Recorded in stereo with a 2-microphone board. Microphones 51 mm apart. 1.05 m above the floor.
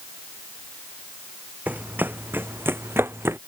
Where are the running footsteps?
35° right (ahead or behind); by 3.4 s 55° right (ahead or behind).